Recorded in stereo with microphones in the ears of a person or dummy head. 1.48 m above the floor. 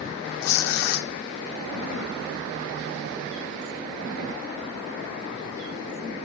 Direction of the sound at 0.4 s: 75° left (ahead or behind).